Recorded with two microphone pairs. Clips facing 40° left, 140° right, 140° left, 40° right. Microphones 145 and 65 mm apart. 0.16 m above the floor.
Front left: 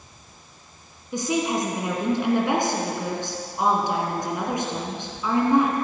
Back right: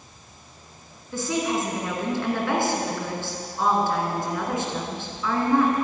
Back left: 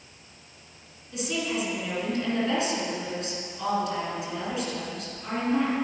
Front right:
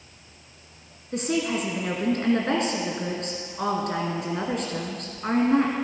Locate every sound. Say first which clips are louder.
1.1 s a woman speaking: front left 1 dB, front right 4 dB; 25° right, 2.5 m